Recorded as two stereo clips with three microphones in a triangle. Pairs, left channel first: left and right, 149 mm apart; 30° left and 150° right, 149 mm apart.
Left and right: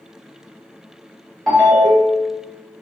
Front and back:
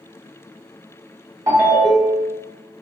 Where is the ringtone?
175° left, 1.1 m.